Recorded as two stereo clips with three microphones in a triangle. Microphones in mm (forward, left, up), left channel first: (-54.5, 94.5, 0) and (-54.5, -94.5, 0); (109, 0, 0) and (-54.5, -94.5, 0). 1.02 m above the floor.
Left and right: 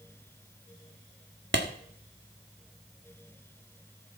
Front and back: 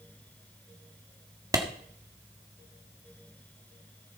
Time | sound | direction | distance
1.5 | a clap | 75° right | 1.6 m